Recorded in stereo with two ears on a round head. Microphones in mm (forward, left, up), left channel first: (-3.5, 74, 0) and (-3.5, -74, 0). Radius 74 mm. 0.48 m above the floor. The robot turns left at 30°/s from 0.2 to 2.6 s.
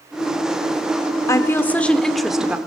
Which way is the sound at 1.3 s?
30° left.